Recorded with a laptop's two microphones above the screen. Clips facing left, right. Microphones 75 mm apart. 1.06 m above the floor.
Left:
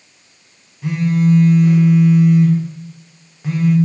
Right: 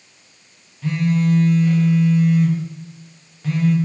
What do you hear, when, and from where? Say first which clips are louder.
0.8 s a phone buzzing: left 3 dB; 15° left (ahead or behind), 0.5 m